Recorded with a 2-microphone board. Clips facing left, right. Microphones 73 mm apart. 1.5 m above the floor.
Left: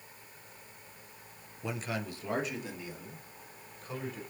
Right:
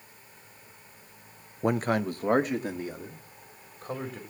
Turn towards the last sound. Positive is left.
turn(degrees=-45)  # may be behind; listen again after turning